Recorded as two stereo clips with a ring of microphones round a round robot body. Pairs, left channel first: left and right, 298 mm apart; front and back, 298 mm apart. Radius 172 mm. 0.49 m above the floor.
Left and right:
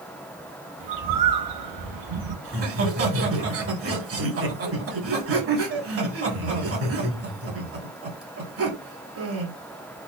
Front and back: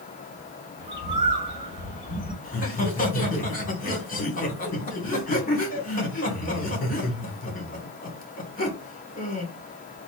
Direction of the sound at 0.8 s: 105° right.